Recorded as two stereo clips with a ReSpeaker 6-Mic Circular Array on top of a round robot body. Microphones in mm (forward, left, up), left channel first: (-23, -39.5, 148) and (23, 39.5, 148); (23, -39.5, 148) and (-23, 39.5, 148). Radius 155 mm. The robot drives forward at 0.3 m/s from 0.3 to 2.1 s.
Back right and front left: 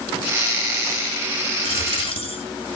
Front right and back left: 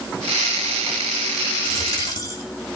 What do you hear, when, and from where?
1.6 s a dropped coin: 110° right, 7.5 m